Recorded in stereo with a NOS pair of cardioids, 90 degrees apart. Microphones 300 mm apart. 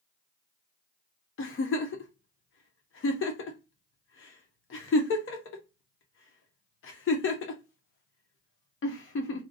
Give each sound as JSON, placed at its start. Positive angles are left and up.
{"t": 1.4, "sound": "a giggle", "azimuth_deg": 45, "distance_m": 0.8}